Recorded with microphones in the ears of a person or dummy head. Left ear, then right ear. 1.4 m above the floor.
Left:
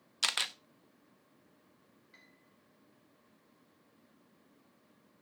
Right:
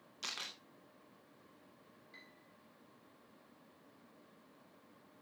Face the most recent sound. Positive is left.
turn(degrees=0)  # may be behind; listen again after turning